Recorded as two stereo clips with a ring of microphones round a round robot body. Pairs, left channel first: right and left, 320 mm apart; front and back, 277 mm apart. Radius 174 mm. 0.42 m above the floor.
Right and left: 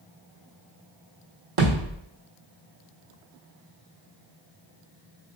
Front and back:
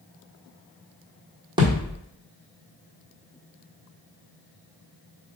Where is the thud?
105° left, 1.7 m.